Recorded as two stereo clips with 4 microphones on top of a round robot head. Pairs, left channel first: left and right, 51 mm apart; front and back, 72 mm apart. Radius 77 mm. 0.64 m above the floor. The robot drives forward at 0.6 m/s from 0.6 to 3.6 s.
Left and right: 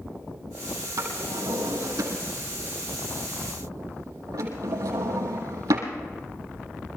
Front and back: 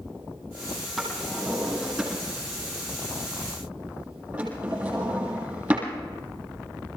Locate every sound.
1.0 s a drawer: 95° right, 5.5 m; by 5.9 s 110° right, 6 m